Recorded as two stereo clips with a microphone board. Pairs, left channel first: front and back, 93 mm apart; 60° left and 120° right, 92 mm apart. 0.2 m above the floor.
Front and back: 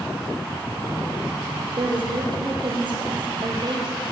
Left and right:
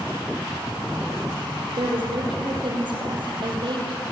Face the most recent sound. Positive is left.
turn(degrees=-150)